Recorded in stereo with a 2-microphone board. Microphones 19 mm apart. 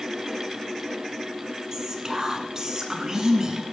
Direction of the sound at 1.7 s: 30° right (ahead or behind).